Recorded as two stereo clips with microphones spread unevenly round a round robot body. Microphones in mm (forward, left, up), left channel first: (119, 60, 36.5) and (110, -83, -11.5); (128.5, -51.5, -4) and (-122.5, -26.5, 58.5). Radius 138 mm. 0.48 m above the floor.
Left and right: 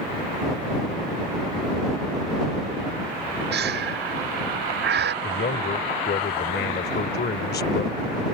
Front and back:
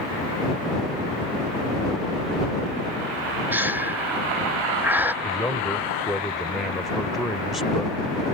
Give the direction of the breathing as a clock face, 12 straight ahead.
3 o'clock.